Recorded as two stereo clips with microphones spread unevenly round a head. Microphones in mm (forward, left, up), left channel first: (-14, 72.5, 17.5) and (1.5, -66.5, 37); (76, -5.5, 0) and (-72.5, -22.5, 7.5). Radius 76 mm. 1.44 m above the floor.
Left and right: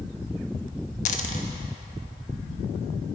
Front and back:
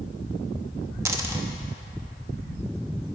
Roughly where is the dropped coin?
Behind left.